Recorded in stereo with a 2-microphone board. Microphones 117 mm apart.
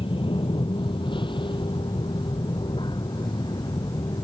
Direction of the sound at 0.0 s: 50° left (ahead or behind).